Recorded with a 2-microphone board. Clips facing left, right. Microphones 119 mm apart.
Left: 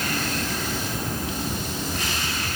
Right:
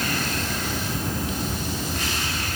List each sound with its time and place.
Only background noise.